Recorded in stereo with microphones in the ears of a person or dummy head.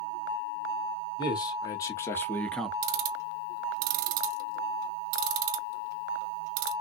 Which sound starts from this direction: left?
A man speaking, at 1.2 s.